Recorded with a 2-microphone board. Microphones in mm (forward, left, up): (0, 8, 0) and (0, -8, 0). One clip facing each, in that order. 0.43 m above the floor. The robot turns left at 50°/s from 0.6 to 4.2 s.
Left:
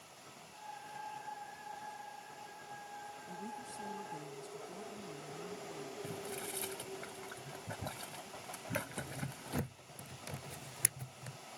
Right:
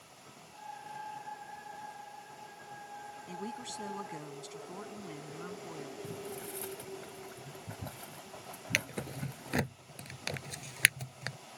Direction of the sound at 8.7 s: 65° right (ahead or behind).